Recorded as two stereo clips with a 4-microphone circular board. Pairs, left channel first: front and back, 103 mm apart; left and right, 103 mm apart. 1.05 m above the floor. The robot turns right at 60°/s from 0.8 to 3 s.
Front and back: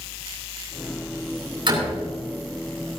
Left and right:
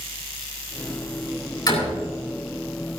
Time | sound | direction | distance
1.7 | a door slam | 140° left | 7.5 m